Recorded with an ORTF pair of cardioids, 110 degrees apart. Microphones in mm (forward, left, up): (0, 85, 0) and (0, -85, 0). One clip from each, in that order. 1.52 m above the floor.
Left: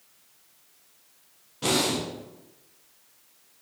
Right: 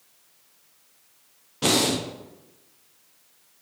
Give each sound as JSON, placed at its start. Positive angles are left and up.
{"t": 1.6, "sound": "breathing", "azimuth_deg": -30, "distance_m": 0.6}